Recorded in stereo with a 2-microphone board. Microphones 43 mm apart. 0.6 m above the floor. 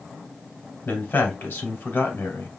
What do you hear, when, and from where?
0.8 s a man speaking: 50° left (ahead or behind), 2.5 m